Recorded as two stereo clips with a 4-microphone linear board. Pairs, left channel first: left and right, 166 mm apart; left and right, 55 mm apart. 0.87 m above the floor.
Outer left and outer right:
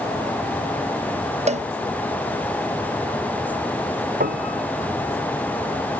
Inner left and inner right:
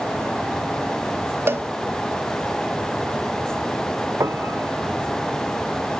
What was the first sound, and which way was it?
A cowbell, 40° right (ahead or behind).